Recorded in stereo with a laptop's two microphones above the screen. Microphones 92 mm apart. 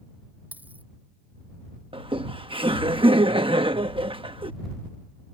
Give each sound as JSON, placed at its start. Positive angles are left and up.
{"t": 0.5, "sound": "a dropped coin", "side_deg": -20}
{"t": 1.9, "sound": "laughter", "side_deg": -75}